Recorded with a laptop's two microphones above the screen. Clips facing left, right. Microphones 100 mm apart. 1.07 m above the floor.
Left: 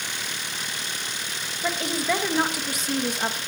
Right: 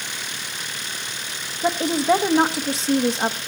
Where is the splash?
No splash in this recording.